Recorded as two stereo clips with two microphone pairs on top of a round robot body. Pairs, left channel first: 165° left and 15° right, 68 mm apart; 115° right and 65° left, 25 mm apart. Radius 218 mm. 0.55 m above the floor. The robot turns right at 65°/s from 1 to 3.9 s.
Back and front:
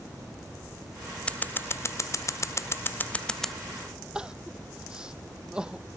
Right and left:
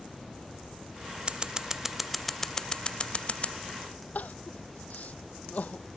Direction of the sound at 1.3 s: 105° left.